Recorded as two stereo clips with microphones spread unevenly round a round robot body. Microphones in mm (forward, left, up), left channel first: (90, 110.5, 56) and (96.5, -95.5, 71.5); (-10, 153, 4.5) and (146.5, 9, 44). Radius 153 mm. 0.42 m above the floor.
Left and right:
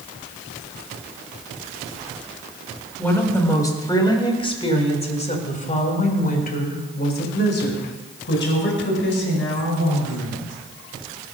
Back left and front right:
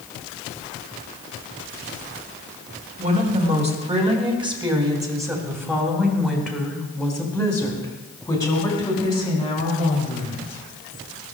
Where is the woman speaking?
15° left, 3.5 m; by 10.5 s 80° left, 5 m.